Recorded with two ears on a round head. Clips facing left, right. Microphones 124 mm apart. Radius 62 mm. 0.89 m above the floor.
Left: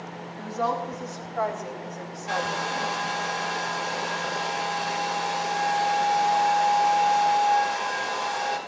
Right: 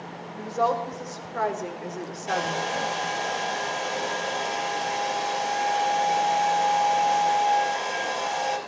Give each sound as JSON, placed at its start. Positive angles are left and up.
{"t": 0.4, "sound": "a woman speaking", "side_deg": -60, "distance_m": 3.5}
{"t": 2.3, "sound": "a hair dryer", "side_deg": -40, "distance_m": 4.0}